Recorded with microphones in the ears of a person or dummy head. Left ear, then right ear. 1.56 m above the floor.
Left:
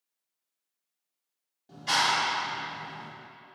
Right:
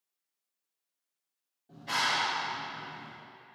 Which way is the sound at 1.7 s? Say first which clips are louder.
Left 4 dB; 50° left (ahead or behind).